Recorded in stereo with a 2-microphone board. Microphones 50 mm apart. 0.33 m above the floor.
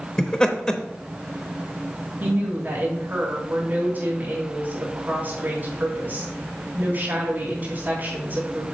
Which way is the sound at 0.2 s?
20° left (ahead or behind).